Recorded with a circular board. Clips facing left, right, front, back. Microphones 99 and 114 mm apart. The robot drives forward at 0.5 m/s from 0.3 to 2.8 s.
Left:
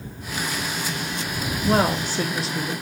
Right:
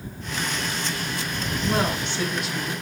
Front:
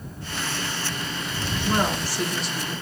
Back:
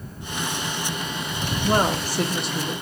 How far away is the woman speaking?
About 0.7 m.